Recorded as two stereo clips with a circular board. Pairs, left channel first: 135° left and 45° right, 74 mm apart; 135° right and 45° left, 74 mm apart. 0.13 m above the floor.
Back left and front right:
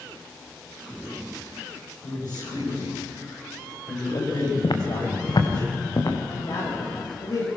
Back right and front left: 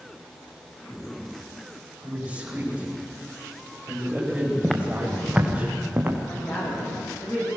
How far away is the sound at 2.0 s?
About 10 m.